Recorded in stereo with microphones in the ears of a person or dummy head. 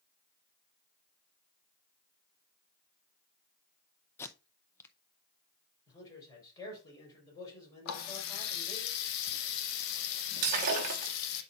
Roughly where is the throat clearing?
I don't hear throat clearing.